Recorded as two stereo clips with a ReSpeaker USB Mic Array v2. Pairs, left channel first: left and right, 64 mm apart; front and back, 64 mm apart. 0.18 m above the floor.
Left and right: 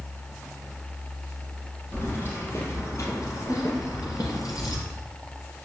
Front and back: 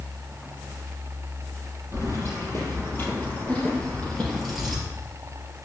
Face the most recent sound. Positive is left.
turn(degrees=95)